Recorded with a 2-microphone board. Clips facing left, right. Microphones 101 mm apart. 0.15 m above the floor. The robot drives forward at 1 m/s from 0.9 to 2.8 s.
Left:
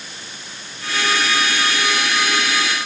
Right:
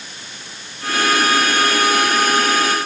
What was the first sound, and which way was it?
Only background noise.